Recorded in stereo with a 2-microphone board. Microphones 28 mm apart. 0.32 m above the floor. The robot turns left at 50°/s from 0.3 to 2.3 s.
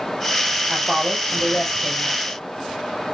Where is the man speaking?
155° right, 5.5 m; by 2.4 s 125° left, 5.5 m.